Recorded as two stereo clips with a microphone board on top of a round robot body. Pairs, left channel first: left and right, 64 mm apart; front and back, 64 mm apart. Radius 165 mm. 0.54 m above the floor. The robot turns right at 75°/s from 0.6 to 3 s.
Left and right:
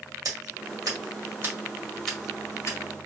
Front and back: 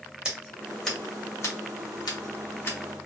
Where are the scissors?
105° right, 1.9 m; by 2.8 s 60° left, 1.9 m.